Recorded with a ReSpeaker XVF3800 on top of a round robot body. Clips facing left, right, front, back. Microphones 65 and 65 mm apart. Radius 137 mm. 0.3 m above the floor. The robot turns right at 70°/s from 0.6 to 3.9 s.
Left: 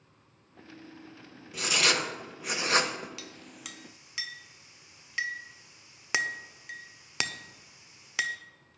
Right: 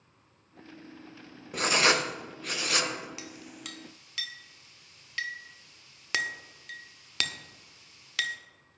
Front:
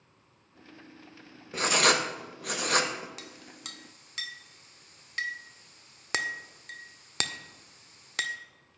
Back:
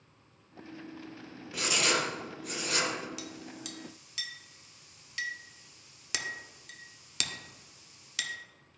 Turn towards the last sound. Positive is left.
turn(degrees=25)